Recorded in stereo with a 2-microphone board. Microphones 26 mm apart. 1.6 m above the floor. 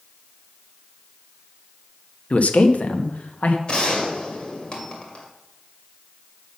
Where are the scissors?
No scissors in this recording.